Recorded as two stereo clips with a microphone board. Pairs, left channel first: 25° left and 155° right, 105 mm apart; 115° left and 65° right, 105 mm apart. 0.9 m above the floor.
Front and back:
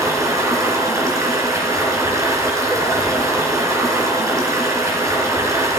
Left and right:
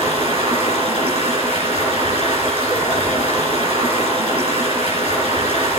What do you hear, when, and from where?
0.0 s running water: 95° right, 3.5 m